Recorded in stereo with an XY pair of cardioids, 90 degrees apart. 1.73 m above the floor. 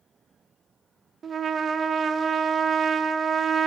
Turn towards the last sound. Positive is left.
turn(degrees=-55)